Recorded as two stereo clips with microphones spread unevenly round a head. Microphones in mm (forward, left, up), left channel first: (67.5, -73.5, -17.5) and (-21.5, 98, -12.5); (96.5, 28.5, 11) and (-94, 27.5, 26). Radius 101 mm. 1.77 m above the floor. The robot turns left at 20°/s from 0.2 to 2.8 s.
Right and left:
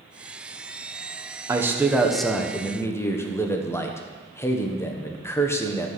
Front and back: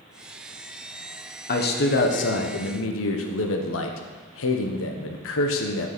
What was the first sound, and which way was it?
A man speaking, 40° left.